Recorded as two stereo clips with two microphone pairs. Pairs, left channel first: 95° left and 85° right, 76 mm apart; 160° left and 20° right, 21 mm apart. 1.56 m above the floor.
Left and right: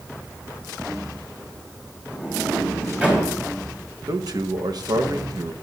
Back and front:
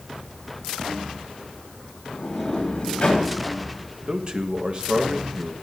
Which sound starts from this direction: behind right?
A sliding door, at 2.1 s.